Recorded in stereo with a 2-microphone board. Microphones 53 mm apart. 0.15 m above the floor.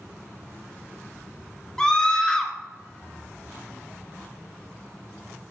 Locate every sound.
1.8 s a scream: 15° left (ahead or behind), 2 m